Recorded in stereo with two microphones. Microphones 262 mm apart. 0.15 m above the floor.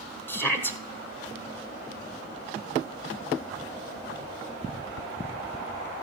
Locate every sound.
0.3 s a shout: 10° left (ahead or behind), 1.3 m